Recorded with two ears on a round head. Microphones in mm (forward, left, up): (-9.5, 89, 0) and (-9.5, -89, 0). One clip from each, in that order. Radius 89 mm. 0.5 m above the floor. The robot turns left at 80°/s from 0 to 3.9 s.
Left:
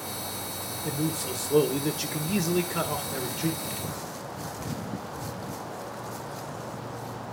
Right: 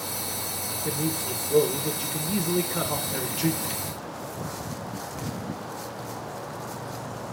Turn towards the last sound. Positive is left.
turn(degrees=-65)